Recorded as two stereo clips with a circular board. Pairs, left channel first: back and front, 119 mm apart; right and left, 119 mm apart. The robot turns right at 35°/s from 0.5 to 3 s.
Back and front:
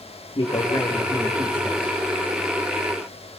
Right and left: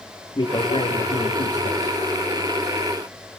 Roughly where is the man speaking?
Behind right.